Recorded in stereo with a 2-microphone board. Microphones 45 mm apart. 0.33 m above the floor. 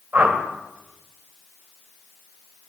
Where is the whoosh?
40° right (ahead or behind), 1.7 m.